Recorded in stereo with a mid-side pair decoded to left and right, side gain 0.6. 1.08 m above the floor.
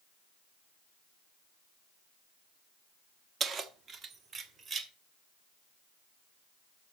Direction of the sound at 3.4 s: 40° right.